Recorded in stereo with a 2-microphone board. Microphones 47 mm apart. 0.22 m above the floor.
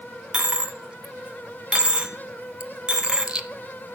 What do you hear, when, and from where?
0.3 s a dropped coin: 20° right (ahead or behind), 0.8 m